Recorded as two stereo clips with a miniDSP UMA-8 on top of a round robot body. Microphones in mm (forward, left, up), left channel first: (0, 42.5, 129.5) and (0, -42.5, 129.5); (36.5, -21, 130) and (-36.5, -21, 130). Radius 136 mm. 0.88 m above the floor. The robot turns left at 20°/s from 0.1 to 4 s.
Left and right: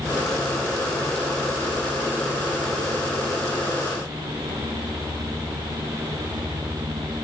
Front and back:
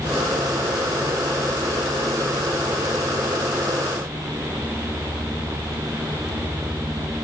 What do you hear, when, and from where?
Only background noise.